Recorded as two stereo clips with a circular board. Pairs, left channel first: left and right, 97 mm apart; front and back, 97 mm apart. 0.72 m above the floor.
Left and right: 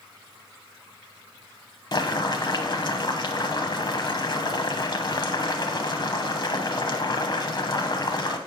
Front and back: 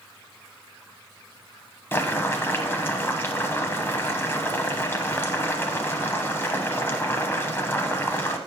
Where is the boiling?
60° left, 0.8 m.